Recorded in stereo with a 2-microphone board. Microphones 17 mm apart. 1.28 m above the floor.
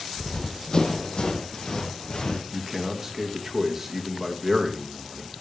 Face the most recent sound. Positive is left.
turn(degrees=-20)  # may be behind; listen again after turning